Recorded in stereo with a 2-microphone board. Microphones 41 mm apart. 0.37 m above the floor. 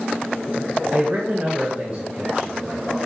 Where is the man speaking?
35° right (ahead or behind), 1.1 m; by 3.0 s 20° right (ahead or behind), 1.6 m.